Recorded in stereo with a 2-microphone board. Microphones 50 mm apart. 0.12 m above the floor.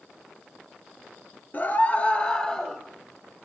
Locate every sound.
1.5 s a scream: 40° left (ahead or behind), 2 m; by 2.8 s 10° left (ahead or behind), 2.5 m